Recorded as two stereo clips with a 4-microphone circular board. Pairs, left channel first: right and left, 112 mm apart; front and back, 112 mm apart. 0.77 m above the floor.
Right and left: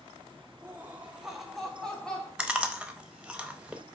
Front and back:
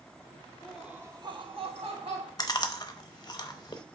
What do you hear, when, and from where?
0.6 s laughter: 60° left, 0.8 m; by 2.3 s 170° right, 1.9 m
2.4 s chewing: 15° left, 0.7 m